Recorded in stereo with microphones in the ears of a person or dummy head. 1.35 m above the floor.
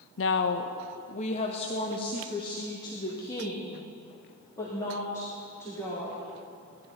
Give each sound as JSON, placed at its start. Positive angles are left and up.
{"t": 0.2, "sound": "a woman speaking", "side_deg": 55, "distance_m": 0.6}